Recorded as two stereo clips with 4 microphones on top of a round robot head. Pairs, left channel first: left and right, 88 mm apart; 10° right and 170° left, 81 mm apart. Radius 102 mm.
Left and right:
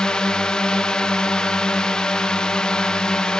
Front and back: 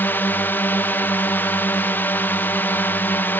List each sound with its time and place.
0.0 s a drone: 20° left